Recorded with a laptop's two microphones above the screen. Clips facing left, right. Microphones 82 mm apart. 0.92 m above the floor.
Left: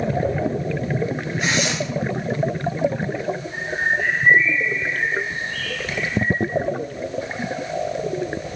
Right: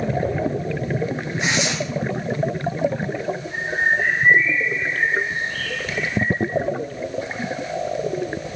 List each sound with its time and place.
1.4 s tearing paper: 25° right (ahead or behind), 2.5 m
3.5 s a bird: 85° right, 4.5 m